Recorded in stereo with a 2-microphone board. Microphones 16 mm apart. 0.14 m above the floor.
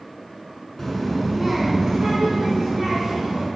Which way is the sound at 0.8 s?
15° left (ahead or behind).